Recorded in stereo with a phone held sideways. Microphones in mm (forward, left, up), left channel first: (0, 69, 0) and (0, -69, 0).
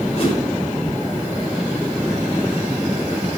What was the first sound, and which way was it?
A whoosh, 45° left (ahead or behind).